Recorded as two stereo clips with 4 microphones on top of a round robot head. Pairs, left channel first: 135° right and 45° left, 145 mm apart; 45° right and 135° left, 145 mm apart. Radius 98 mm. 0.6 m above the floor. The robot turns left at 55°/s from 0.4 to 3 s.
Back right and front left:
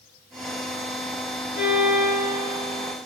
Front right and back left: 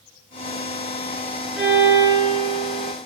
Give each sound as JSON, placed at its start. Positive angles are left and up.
{"t": 1.6, "sound": "a violin", "azimuth_deg": -140, "distance_m": 1.0}